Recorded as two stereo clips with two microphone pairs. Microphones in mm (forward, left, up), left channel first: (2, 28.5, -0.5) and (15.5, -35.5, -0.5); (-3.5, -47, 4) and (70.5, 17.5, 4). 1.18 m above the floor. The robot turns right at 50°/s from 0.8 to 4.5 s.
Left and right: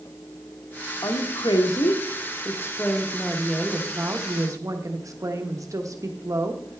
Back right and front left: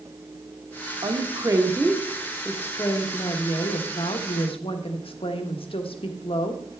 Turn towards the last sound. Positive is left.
turn(degrees=-115)